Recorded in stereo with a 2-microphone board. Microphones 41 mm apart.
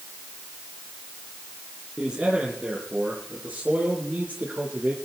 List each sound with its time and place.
2.0 s a man speaking: 20° right (ahead or behind), 4 m; by 5.0 s 35° right (ahead or behind), 5.5 m